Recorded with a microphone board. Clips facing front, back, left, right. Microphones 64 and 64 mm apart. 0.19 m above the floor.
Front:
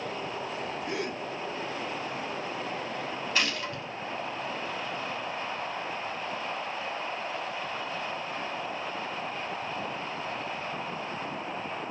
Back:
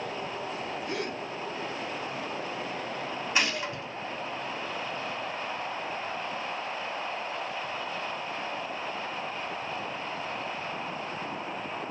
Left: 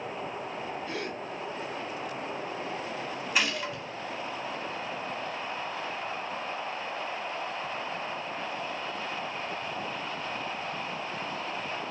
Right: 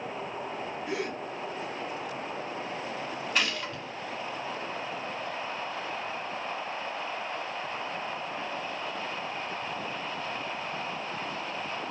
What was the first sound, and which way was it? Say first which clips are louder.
A gasp: even, right 2 dB; 30° right.